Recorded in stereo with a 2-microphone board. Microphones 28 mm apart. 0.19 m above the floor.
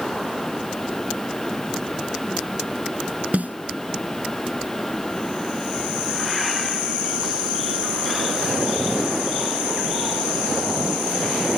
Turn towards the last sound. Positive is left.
turn(degrees=-65)  # may be behind; listen again after turning